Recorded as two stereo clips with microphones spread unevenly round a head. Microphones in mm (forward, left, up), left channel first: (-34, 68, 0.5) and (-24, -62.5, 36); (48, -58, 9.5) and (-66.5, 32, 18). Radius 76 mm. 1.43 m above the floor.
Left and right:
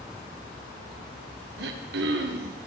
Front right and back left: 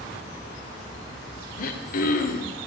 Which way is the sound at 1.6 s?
75° right.